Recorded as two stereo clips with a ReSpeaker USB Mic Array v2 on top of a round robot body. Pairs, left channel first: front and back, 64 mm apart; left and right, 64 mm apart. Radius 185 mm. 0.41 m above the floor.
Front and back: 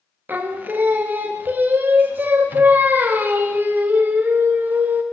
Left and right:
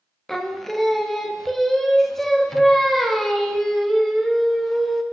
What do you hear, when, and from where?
0.3 s singing: 170° left, 0.9 m